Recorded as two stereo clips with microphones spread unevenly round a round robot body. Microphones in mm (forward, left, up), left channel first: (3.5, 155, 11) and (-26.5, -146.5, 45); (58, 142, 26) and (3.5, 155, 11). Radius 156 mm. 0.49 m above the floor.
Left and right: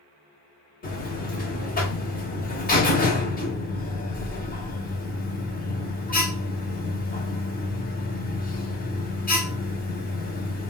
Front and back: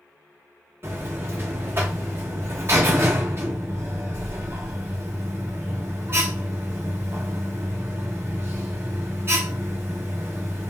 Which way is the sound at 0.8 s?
140° left.